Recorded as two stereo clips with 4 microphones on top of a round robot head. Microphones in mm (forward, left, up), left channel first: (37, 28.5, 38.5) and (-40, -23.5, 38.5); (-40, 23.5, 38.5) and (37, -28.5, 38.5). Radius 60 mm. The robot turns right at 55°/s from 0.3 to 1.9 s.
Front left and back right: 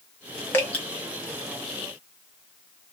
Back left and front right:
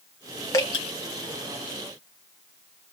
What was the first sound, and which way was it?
Dripping, 95° left.